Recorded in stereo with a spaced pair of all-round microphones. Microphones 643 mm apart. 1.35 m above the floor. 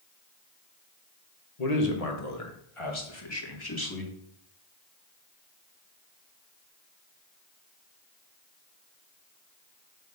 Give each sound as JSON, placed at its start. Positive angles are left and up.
{"t": 1.6, "sound": "a man speaking", "side_deg": 70, "distance_m": 1.6}